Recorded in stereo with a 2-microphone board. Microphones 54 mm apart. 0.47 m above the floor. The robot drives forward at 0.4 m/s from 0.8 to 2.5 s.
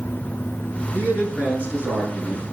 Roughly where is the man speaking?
Right.